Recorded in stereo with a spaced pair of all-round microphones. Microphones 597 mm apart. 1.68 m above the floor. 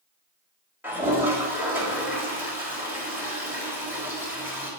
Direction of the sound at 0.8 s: 5° right (ahead or behind).